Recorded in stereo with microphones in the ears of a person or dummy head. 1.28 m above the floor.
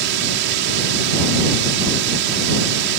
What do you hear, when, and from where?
0.0 s a drone: 65° right (ahead or behind)